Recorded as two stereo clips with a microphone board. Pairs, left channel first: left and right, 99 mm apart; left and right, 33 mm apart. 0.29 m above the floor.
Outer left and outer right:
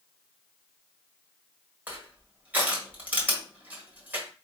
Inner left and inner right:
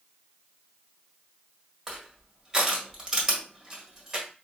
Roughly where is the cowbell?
I don't hear a cowbell.